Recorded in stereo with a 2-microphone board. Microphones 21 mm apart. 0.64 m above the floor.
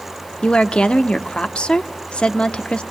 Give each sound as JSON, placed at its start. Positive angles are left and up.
{"t": 0.4, "sound": "a woman speaking", "side_deg": 55, "distance_m": 1.2}